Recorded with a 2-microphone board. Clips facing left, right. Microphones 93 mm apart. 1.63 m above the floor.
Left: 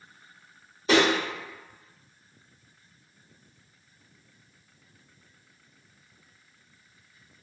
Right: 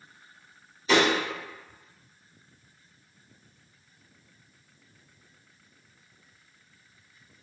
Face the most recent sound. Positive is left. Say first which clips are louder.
# left 1 dB
turn(degrees=55)  # may be behind; listen again after turning